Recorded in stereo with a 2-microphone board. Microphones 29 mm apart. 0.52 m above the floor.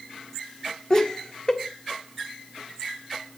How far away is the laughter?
About 1.5 m.